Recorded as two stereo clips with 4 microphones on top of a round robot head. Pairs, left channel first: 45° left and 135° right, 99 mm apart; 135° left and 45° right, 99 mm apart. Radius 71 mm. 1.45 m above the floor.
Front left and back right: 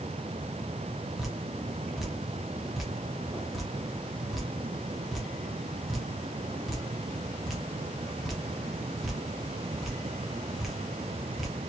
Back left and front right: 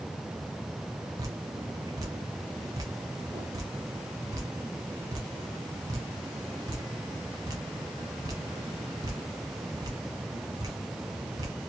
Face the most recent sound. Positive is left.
turn(degrees=-45)